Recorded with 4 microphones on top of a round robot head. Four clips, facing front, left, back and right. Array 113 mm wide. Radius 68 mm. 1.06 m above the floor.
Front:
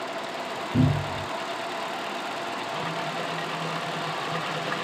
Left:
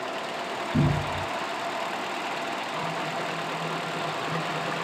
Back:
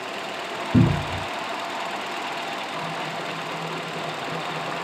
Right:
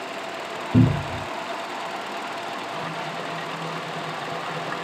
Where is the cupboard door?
140° right, 0.5 m.